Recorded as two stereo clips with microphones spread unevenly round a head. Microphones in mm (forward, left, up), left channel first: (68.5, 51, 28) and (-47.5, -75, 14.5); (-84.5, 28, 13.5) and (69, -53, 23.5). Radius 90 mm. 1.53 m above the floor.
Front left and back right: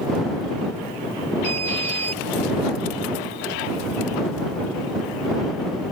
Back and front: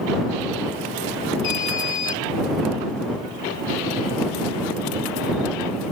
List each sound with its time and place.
1.4 s an alarm: 170° left